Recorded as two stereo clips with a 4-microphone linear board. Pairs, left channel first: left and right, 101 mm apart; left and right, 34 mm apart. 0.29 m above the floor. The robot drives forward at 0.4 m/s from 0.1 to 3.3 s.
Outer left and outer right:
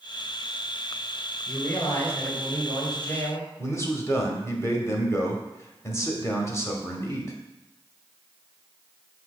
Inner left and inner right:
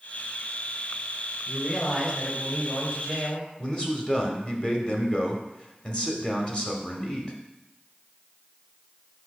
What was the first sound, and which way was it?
A man speaking, 30° left (ahead or behind).